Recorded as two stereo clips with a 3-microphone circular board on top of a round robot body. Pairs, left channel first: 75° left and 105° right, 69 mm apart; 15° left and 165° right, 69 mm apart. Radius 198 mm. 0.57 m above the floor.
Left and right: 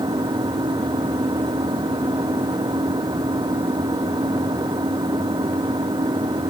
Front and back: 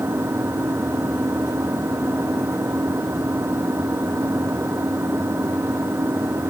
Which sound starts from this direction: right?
An engine running, at 0.0 s.